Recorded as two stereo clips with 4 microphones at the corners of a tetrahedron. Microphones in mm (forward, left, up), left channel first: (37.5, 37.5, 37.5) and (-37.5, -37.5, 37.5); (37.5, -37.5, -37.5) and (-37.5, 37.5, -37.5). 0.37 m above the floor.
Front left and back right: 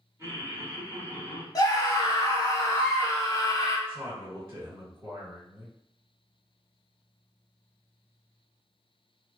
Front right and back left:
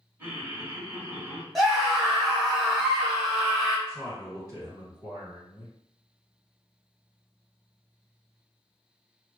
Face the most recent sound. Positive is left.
turn(degrees=170)